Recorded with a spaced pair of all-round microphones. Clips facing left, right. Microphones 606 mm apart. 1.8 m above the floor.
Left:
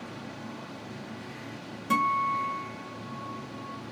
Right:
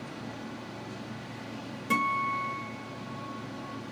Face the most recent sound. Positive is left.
turn(degrees=15)  # may be behind; listen again after turning